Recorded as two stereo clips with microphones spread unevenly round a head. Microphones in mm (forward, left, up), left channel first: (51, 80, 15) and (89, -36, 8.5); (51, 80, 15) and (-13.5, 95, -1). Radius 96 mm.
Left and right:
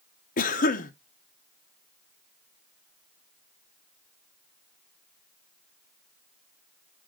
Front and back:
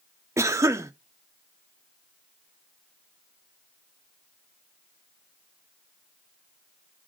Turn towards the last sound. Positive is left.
turn(degrees=115)